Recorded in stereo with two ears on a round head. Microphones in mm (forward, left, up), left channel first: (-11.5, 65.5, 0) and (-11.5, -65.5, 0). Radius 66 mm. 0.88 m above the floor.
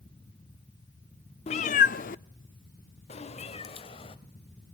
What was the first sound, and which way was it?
A cat meowing, 40° left (ahead or behind).